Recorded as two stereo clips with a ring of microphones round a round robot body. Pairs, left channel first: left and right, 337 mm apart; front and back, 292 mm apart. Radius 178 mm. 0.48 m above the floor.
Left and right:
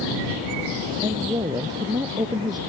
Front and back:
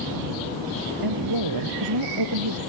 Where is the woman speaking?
170° right.